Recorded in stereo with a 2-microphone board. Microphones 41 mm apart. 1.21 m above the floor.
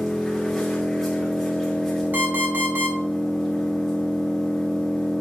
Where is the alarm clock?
55° right (ahead or behind), 2.5 m.